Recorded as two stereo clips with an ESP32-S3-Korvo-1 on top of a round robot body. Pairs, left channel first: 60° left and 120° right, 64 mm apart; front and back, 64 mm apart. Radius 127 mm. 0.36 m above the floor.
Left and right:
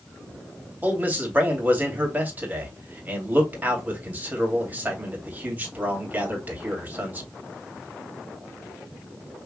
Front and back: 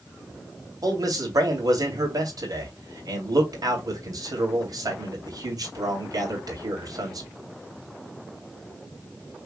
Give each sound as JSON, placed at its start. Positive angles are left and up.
{"t": 0.8, "sound": "a man speaking", "azimuth_deg": 180, "distance_m": 2.5}